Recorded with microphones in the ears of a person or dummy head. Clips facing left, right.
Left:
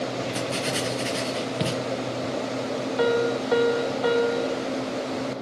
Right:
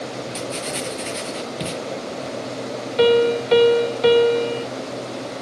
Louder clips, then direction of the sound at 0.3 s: Left 1 dB; 5° left (ahead or behind).